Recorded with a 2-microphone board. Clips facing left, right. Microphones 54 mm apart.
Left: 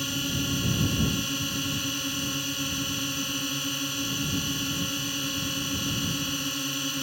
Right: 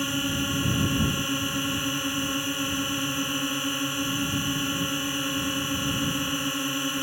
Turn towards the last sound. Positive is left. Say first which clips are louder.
# right 3 dB
turn(degrees=-20)  # may be behind; listen again after turning